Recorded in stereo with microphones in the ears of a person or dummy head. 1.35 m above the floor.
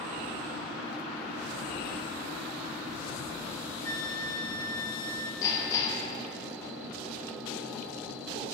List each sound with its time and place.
3.8 s a flute: 15° left (ahead or behind), 1.4 m
5.4 s hammering: 15° left (ahead or behind), 3.5 m